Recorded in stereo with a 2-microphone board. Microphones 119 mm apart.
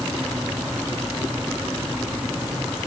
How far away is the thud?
I don't hear a thud.